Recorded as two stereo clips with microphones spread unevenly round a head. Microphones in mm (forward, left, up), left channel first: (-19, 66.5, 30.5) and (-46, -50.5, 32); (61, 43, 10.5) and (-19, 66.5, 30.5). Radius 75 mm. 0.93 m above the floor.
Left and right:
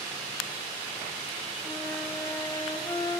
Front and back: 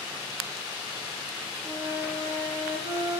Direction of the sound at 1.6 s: 145° left.